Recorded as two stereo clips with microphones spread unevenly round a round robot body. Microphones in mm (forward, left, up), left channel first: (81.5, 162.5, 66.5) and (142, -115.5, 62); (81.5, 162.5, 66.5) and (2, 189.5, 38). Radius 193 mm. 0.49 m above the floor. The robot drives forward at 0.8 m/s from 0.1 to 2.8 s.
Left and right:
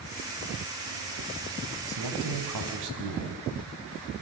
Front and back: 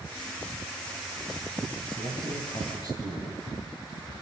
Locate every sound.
1.9 s a man speaking: 75° right, 4.5 m; by 3.4 s 85° right, 4.5 m